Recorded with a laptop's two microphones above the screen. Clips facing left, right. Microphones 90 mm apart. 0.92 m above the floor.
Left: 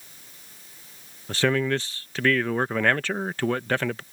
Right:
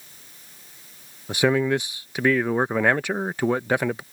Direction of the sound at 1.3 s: 15° right (ahead or behind).